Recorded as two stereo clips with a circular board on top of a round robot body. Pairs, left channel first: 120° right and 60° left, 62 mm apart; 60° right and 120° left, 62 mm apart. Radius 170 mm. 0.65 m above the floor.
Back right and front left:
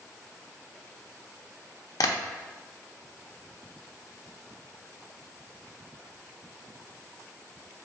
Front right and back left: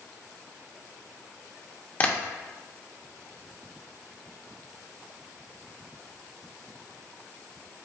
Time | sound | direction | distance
2.0 | tapping | 125° right | 0.8 m